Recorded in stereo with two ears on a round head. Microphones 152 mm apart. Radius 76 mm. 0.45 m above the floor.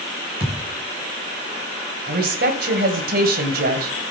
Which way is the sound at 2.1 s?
60° right (ahead or behind).